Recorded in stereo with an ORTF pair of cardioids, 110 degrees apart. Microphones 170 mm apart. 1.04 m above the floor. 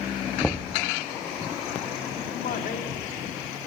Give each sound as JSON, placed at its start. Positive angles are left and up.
{"t": 0.4, "sound": "knocking", "azimuth_deg": 5, "distance_m": 0.9}
{"t": 2.3, "sound": "a man speaking", "azimuth_deg": 60, "distance_m": 2.5}